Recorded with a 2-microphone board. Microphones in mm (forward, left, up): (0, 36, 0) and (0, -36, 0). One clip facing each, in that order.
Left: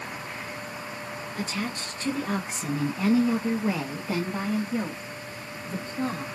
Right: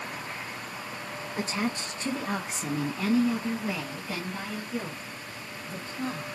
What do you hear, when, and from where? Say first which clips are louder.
1.4 s a woman speaking: right 2 dB; 30° right (ahead or behind), 1.1 m; by 6.3 s 70° left (ahead or behind), 2.5 m